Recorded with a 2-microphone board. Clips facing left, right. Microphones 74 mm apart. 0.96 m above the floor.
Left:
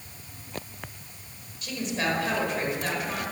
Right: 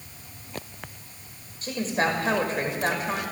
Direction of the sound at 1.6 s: 40° right (ahead or behind).